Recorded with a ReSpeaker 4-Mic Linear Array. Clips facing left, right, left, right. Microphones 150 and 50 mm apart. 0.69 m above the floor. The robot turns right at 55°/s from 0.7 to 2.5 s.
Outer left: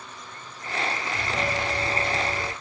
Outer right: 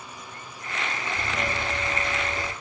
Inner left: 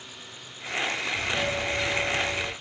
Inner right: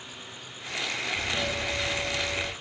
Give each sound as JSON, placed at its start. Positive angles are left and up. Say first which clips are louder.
{"t": 1.1, "sound": "a doorbell", "louder": "outer left 1 dB, inner left 2 dB", "azimuth_deg": 70, "distance_m": 3.5}